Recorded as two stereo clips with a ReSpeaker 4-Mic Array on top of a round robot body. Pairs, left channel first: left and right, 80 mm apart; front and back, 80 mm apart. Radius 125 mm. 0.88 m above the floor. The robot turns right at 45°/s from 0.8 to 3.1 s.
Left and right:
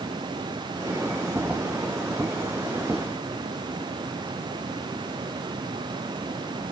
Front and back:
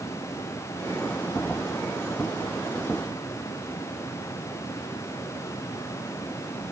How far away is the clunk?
No clunk in this recording.